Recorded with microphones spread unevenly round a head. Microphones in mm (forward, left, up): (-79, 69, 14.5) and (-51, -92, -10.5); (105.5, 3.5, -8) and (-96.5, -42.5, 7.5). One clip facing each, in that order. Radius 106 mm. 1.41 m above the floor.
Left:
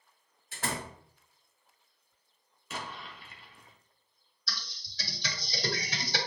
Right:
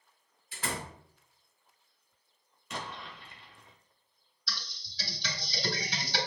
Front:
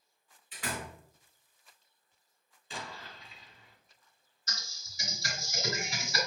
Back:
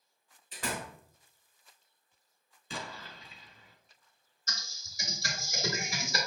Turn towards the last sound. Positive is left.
turn(degrees=140)